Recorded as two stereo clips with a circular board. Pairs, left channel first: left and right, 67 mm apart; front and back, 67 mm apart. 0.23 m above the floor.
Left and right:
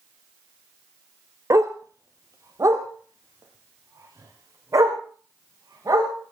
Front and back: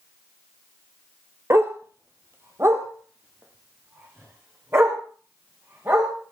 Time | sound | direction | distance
1.5 | a dog barking | 130° right | 1.4 m